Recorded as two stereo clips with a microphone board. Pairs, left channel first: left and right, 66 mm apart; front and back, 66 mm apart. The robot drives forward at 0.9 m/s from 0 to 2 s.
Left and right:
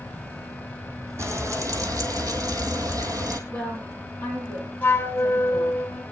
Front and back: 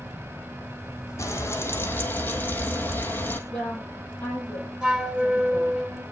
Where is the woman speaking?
65° right, 9 m.